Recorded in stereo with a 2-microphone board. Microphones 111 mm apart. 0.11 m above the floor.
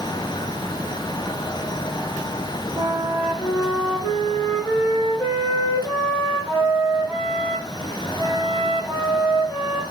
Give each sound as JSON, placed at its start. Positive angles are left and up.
{"t": 2.8, "sound": "a flute", "side_deg": 0, "distance_m": 4.0}